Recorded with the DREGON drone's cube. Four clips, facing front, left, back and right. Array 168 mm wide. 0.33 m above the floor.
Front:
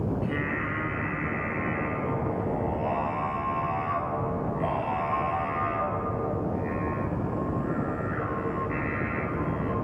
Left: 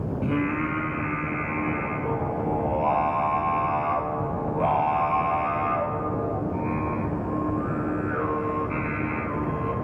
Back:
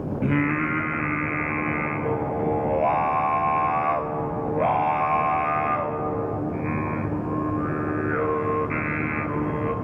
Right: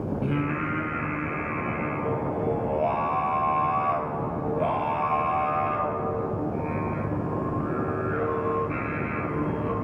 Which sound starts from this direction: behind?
Singing, at 0.2 s.